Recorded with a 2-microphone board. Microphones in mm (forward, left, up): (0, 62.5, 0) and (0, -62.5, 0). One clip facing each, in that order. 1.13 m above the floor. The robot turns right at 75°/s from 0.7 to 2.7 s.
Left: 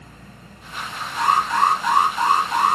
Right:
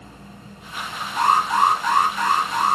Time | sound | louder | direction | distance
1.2 | an alarm | right 1 dB | 50° right | 1.2 m